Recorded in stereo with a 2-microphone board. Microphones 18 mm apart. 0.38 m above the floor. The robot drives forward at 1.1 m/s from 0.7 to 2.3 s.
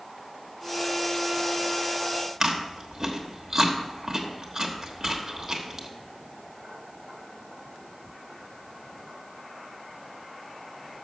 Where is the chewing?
30° right (ahead or behind), 1.1 m.